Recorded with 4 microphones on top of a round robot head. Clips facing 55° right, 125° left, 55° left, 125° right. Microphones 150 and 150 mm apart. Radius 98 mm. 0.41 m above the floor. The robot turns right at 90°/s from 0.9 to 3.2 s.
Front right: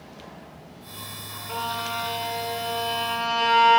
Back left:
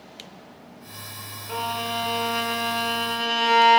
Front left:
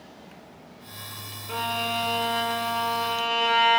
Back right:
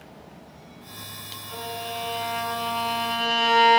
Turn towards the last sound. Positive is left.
turn(degrees=-175)